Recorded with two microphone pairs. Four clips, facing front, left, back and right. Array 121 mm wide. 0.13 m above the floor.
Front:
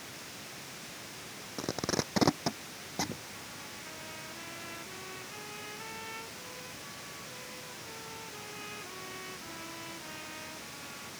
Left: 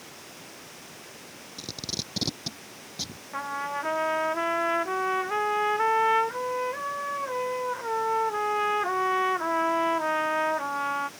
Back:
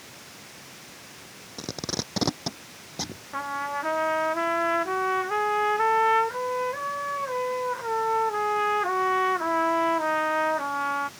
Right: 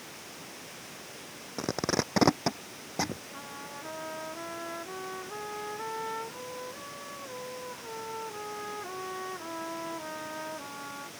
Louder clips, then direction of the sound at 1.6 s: Right 11 dB, even; 90° right.